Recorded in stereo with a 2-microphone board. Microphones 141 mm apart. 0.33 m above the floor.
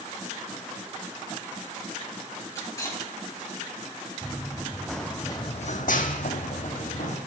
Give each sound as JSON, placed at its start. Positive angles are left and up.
{"t": 2.5, "sound": "cutlery clinking", "side_deg": 20, "distance_m": 4.0}
{"t": 4.2, "sound": "running footsteps", "side_deg": -15, "distance_m": 2.0}